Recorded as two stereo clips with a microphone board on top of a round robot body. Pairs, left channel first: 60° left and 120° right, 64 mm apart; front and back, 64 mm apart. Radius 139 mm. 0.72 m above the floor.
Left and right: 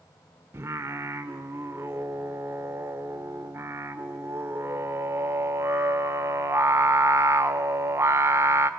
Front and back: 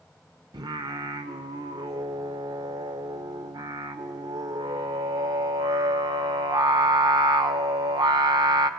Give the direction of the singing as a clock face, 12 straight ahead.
6 o'clock.